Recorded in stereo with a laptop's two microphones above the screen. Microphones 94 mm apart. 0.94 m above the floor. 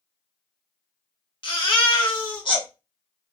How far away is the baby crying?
About 1.6 m.